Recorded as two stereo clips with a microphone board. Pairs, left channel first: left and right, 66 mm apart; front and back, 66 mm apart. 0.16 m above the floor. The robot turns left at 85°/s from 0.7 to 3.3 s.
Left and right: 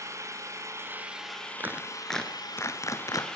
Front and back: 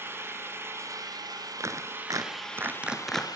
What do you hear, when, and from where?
0.0 s an engine running: 130° right, 2.5 m; by 3.4 s 10° left, 2.5 m
1.6 s a clap: 145° right, 1.8 m; by 3.3 s 75° left, 1.8 m